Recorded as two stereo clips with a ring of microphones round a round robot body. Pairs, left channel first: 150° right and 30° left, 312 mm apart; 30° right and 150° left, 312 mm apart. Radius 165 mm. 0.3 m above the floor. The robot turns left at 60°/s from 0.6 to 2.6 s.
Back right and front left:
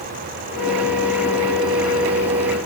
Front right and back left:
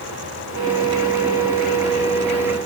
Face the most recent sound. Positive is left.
No sound to turn to.